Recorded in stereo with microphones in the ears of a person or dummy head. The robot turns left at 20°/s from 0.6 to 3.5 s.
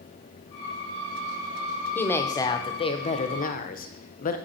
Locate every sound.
1.9 s a woman speaking: 170° left, 0.7 m; by 4.4 s 140° left, 0.7 m